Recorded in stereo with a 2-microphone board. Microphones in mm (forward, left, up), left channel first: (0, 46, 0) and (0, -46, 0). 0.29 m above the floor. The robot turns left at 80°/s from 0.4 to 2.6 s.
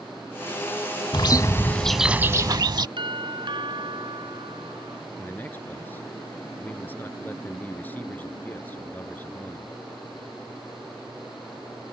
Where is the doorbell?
60° right (ahead or behind).